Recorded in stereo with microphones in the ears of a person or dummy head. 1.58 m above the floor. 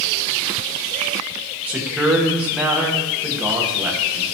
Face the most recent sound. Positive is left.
turn(degrees=-15)  # may be behind; listen again after turning